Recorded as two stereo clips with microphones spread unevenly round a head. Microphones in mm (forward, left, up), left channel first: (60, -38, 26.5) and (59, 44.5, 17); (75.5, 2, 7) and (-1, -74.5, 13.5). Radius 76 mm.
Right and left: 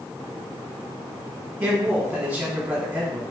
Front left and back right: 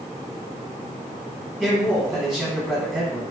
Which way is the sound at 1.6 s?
140° left.